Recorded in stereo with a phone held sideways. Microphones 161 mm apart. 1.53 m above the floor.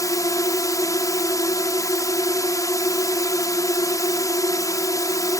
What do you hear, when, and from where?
0.0 s a drone: 20° left (ahead or behind)